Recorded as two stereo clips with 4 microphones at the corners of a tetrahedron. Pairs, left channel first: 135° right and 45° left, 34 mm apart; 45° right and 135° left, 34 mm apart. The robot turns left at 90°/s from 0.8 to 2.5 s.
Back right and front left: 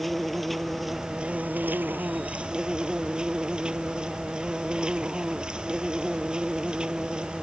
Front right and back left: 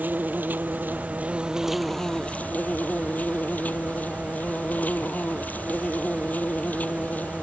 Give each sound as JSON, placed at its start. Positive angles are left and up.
{"t": 0.0, "sound": "an insect", "azimuth_deg": 135}